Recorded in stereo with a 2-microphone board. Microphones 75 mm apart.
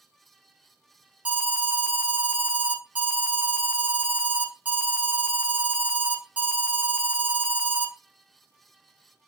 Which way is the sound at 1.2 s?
15° right (ahead or behind).